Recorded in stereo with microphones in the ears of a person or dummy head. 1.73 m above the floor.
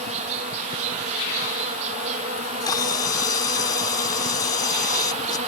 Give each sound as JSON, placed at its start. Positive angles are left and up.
{"t": 0.0, "sound": "an insect", "side_deg": -35}
{"t": 2.4, "sound": "a camera shutter", "side_deg": 20}